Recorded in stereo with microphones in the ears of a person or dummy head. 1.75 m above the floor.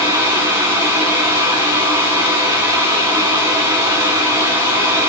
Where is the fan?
20° right (ahead or behind), 2 m.